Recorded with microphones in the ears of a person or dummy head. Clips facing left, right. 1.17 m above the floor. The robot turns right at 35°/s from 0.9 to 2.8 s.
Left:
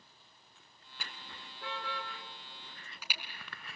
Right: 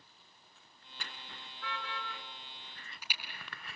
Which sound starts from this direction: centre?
A car horn, at 1.0 s.